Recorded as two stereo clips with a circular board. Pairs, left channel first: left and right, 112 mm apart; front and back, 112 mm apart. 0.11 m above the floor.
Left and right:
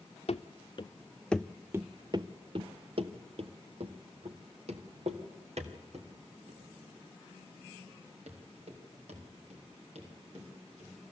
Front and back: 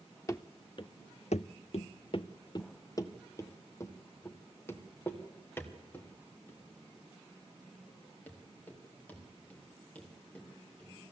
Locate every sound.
0.3 s running footsteps: 65° left, 0.9 m; by 10.9 s 75° right, 6.5 m